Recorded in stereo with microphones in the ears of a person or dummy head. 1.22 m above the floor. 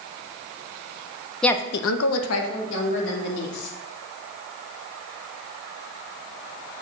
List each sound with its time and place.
1.4 s a woman speaking: 5° left (ahead or behind), 0.6 m; by 3.7 s 60° left (ahead or behind), 3.5 m